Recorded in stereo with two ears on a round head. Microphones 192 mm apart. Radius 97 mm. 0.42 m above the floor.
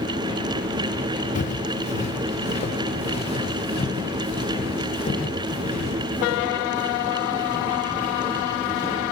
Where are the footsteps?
35° left (ahead or behind), 2.5 m; by 9.0 s 25° left (ahead or behind), 11 m.